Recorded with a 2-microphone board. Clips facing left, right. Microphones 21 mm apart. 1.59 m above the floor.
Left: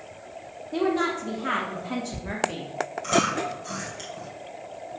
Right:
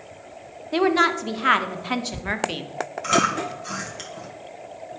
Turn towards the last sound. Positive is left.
turn(degrees=-25)  # may be behind; listen again after turning